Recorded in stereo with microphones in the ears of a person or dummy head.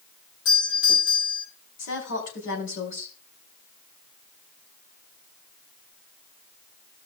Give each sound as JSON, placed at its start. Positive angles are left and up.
{"t": 0.5, "sound": "a doorbell", "side_deg": 65, "distance_m": 4.5}
{"t": 1.8, "sound": "a woman speaking", "side_deg": 75, "distance_m": 4.5}